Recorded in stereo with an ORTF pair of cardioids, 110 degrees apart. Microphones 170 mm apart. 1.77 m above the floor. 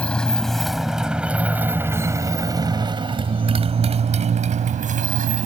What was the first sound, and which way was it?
A motorcycle, 5° left.